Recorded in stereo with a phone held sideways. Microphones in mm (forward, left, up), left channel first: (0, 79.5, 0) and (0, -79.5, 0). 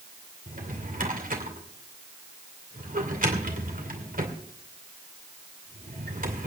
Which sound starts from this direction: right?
A drawer, at 0.5 s.